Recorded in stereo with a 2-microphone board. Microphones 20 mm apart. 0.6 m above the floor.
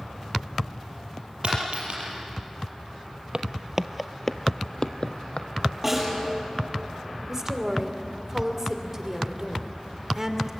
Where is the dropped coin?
70° right (ahead or behind), 6.5 m.